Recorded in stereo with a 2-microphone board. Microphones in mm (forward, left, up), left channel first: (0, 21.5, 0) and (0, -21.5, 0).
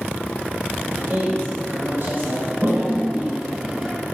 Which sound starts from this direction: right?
A man speaking, at 0.9 s.